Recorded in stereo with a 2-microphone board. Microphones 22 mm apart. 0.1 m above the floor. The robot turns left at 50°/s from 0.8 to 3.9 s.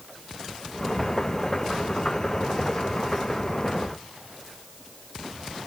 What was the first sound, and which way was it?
Only background noise.